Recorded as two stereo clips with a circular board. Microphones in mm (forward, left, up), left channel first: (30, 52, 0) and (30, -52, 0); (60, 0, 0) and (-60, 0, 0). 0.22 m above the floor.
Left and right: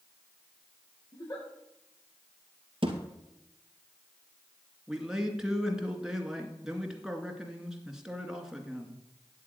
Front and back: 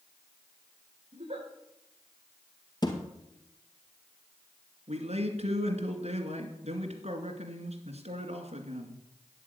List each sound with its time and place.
1.1 s a giggle: 145° left, 5.5 m
2.8 s a thud: 55° right, 2.5 m
4.9 s a man speaking: 175° right, 2.5 m